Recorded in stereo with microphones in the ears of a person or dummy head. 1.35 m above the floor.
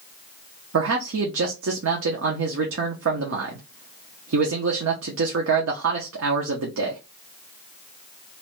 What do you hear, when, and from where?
0.7 s a man speaking: 85° right, 0.7 m